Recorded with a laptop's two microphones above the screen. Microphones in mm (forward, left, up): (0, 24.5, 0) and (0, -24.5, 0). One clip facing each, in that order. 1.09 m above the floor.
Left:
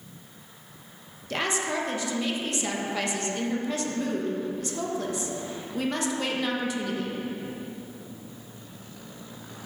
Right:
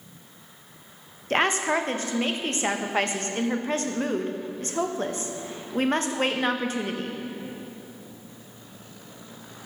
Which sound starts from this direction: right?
A woman speaking, at 1.3 s.